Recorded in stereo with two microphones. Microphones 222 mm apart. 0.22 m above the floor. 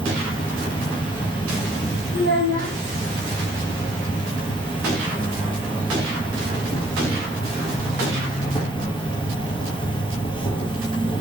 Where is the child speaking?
60° left (ahead or behind), 3 m.